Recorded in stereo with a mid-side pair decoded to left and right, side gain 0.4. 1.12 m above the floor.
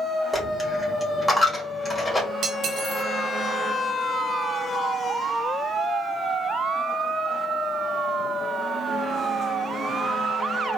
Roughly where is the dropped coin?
Ahead left.